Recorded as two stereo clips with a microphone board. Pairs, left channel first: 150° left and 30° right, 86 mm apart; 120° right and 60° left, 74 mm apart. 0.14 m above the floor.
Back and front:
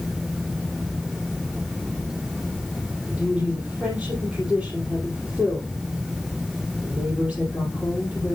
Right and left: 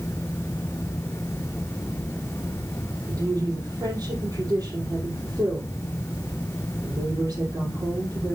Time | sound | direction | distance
3.1 | a woman speaking | 50° left | 3 m